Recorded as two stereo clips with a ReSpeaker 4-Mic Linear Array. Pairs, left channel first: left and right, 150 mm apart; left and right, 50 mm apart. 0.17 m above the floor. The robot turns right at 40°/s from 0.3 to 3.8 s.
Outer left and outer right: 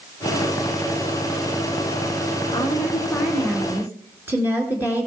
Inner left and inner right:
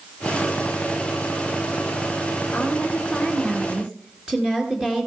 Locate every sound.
2.5 s a woman speaking: 145° left, 3 m; by 5.1 s 165° right, 3 m